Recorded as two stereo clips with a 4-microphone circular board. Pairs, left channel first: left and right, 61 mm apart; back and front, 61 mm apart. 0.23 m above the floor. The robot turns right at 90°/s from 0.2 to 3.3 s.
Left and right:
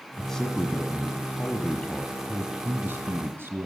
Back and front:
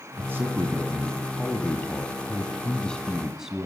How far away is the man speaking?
About 2.0 m.